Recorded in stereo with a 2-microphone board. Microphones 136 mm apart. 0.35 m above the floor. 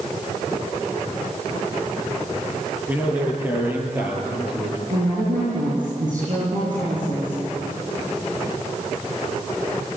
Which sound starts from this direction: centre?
A man speaking, at 2.9 s.